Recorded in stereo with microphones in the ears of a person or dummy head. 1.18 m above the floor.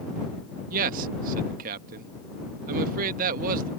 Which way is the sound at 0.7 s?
50° right (ahead or behind).